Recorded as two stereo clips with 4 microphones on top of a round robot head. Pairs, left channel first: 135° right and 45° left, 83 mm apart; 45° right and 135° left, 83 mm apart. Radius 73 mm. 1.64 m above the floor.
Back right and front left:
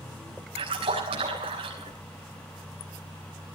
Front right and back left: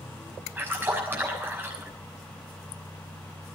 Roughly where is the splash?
Left.